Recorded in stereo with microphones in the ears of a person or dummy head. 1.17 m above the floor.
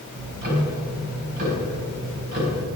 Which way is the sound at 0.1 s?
50° right (ahead or behind).